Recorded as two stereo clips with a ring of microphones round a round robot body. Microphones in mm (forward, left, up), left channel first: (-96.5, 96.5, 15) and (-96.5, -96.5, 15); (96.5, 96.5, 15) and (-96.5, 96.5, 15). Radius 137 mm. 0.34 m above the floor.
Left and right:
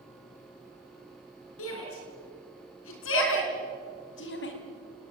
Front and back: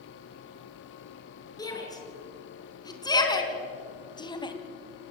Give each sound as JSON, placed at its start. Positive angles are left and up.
{"t": 1.6, "sound": "a shout", "azimuth_deg": 70, "distance_m": 6.5}